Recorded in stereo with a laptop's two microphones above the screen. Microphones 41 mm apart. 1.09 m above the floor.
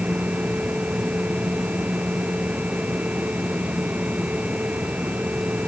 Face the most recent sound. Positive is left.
turn(degrees=-30)  # may be behind; listen again after turning